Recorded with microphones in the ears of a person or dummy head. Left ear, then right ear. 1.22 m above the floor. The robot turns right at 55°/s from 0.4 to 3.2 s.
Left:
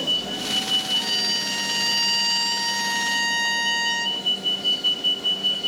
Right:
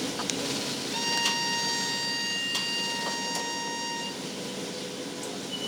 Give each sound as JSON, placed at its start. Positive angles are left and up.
{"t": 0.9, "sound": "a violin", "azimuth_deg": -25, "distance_m": 4.5}